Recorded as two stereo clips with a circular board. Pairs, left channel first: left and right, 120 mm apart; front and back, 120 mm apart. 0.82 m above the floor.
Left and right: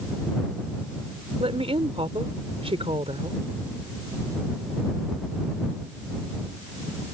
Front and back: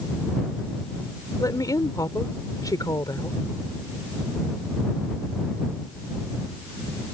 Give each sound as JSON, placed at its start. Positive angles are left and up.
{"t": 1.4, "sound": "a woman speaking", "azimuth_deg": -55}